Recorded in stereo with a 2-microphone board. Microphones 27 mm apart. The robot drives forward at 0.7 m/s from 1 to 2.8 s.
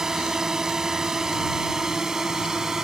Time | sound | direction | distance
0.0 | a drone | 25° right (ahead or behind) | ?